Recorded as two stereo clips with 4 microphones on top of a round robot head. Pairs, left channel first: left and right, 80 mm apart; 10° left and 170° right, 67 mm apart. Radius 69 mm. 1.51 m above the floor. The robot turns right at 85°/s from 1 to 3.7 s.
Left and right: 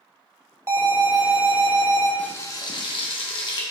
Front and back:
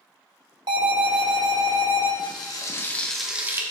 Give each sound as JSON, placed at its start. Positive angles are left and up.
{"t": 0.7, "sound": "an alarm", "azimuth_deg": -155, "distance_m": 2.5}
{"t": 2.2, "sound": "frying", "azimuth_deg": 15, "distance_m": 1.6}